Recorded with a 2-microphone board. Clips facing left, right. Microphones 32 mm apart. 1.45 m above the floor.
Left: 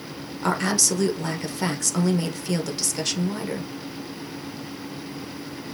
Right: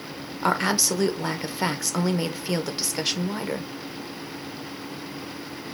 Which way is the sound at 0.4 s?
20° right (ahead or behind).